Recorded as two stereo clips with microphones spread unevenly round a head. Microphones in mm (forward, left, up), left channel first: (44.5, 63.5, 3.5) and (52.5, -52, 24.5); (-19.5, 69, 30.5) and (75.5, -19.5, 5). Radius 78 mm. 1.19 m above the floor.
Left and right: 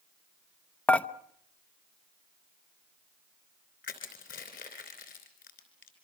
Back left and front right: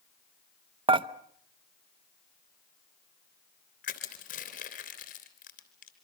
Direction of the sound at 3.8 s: 130° left.